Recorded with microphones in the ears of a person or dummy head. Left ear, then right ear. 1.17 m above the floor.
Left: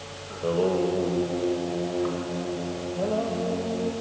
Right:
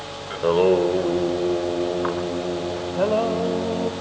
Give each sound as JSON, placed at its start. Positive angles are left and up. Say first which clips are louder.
{"t": 0.3, "sound": "singing", "louder": "right 7 dB", "side_deg": -55, "distance_m": 1.3}